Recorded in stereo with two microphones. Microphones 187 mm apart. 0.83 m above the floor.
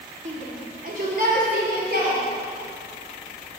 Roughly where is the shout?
Right.